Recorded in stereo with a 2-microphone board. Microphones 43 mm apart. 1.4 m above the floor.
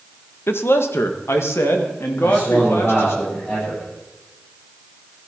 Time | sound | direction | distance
0.5 | a man speaking | 65° left (ahead or behind) | 1.1 m
2.2 | a man speaking | 30° left (ahead or behind) | 8.5 m